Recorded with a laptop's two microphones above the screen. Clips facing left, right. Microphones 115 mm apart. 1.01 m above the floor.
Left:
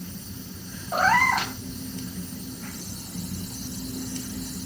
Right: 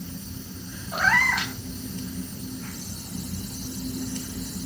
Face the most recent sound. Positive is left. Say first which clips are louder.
# left 4 dB
turn(degrees=40)  # may be behind; listen again after turning